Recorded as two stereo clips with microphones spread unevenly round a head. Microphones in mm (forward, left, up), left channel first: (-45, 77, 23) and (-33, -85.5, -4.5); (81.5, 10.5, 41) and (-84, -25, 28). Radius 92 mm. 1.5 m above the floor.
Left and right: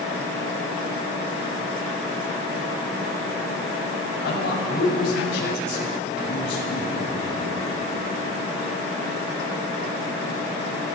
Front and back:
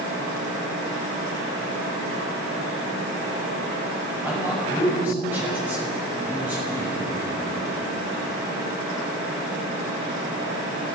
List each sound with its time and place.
4.2 s a man speaking: 110° left, 7.5 m